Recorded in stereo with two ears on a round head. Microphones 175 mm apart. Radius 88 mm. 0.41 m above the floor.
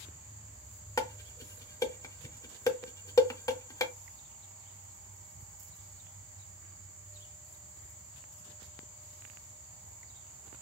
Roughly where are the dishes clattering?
Centre.